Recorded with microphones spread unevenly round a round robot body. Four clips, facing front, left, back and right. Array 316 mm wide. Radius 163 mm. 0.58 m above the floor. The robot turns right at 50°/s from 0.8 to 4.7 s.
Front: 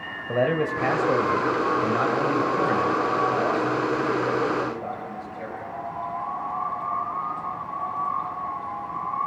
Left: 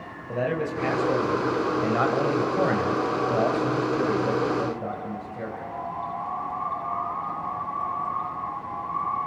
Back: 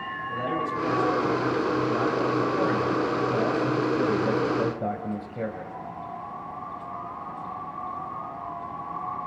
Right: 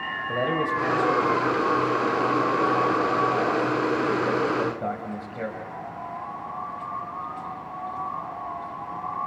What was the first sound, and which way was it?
A man speaking, 5° right.